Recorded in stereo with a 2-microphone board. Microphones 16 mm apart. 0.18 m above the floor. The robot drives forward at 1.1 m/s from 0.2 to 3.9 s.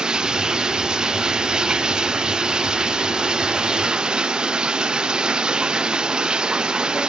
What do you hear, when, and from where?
0.0 s running water: 55° right (ahead or behind); by 7.1 s 60° right (ahead or behind)